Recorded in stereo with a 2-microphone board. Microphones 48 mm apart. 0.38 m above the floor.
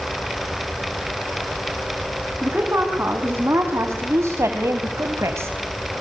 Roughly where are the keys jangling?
No keys jangling in this recording.